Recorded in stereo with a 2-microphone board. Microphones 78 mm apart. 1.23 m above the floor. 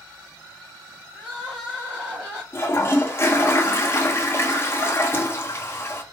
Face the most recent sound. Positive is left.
turn(degrees=30)  # may be behind; listen again after turning